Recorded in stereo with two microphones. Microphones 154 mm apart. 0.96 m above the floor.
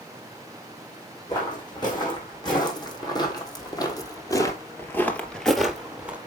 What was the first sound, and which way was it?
Footsteps, 30° left (ahead or behind).